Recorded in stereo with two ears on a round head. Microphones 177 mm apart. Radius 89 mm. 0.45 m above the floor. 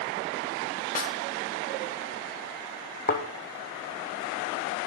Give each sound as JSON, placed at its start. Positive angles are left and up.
{"t": 0.9, "sound": "a snare drum", "side_deg": 40, "distance_m": 1.1}
{"t": 3.1, "sound": "a thud", "side_deg": 45, "distance_m": 1.7}